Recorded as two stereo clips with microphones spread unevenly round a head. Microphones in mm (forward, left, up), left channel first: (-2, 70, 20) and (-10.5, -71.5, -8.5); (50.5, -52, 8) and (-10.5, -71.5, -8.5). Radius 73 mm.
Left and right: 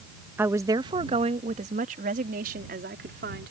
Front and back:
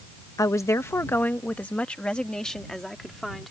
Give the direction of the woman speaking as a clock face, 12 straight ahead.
12 o'clock.